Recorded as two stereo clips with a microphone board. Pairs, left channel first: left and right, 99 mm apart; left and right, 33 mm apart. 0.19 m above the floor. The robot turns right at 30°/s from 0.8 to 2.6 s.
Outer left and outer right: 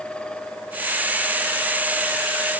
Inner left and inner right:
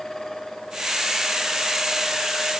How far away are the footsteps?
I don't hear footsteps.